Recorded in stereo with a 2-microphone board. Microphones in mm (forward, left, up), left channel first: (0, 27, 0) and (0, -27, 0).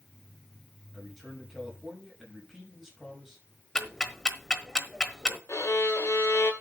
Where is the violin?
60° left (ahead or behind), 2.5 m.